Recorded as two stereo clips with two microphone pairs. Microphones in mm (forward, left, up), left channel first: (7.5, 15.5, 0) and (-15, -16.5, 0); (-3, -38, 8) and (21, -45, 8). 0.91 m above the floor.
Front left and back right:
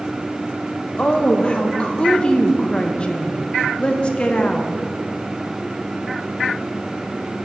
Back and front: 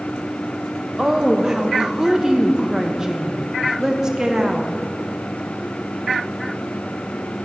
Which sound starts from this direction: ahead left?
A woman speaking, at 1.0 s.